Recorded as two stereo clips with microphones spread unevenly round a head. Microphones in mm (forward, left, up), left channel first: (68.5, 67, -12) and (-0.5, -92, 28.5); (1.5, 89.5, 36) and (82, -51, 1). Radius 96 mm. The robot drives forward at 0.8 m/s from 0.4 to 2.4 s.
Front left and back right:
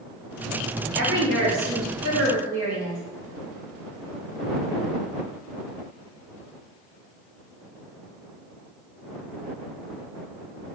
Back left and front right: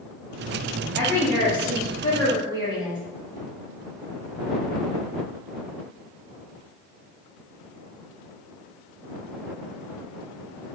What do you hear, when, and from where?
1.0 s a woman speaking: 150° right, 1.1 m; by 3.0 s 165° right, 2 m